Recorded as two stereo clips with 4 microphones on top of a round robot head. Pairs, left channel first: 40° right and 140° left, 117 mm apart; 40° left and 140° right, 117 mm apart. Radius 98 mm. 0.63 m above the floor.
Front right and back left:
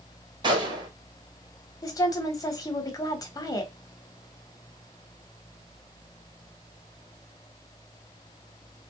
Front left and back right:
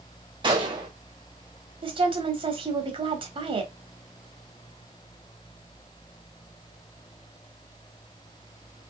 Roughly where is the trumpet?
No trumpet in this recording.